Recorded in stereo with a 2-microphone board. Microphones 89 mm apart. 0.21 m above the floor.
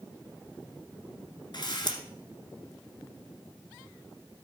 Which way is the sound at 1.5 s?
60° left (ahead or behind).